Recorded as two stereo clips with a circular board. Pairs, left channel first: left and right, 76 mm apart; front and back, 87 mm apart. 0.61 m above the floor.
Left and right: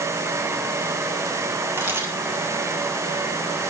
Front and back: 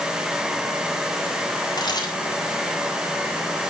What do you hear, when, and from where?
1.8 s a camera shutter: 35° right, 3.5 m